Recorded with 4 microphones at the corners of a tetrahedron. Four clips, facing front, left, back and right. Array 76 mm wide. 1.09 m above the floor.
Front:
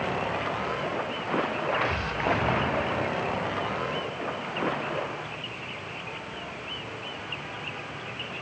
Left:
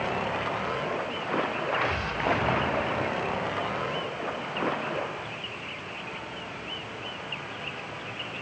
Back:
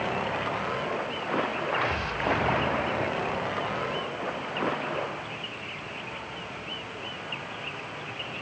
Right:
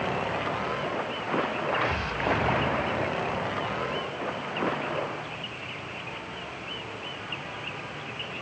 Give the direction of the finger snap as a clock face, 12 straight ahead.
I don't hear a finger snap.